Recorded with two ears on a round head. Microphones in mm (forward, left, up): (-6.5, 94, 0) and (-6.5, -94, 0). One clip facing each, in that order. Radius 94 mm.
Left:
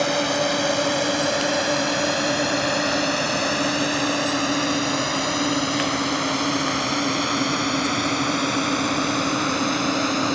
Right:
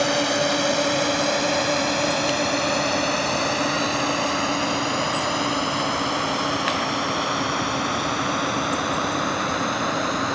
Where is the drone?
Centre (ahead or behind); by 10.4 s 35° left (ahead or behind).